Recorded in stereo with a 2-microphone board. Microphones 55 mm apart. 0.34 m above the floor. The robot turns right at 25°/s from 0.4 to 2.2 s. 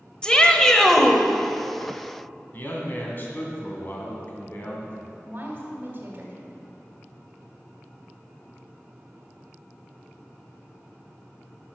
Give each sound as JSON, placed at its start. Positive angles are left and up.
{"t": 0.2, "sound": "a shout", "side_deg": 15, "distance_m": 1.2}
{"t": 2.5, "sound": "a man speaking", "side_deg": 40, "distance_m": 2.5}
{"t": 5.2, "sound": "a woman speaking", "side_deg": -40, "distance_m": 1.9}